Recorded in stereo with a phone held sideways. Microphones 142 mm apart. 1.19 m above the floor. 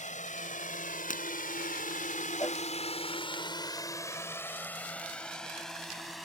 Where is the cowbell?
25° left (ahead or behind).